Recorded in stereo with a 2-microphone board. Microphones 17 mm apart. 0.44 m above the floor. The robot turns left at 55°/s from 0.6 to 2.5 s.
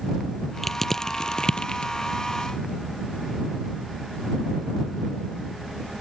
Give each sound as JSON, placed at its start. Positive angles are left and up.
{"t": 0.6, "sound": "crushing", "side_deg": 5}